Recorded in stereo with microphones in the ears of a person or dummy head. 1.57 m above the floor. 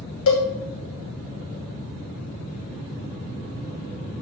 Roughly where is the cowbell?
Left.